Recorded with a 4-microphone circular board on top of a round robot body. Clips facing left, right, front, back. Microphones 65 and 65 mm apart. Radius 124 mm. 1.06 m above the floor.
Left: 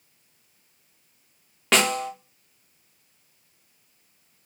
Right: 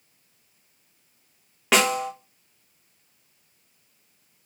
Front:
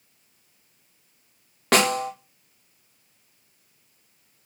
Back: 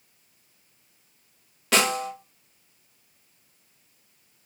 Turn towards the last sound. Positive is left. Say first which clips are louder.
# right 1 dB, front 3 dB
turn(degrees=-5)